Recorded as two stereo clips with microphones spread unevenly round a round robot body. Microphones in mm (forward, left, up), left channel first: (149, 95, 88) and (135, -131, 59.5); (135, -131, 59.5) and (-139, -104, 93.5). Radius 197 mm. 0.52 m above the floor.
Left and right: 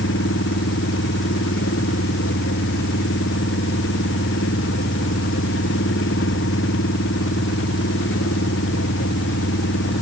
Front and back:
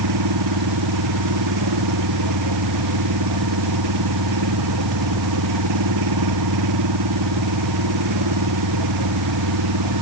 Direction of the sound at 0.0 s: 145° left.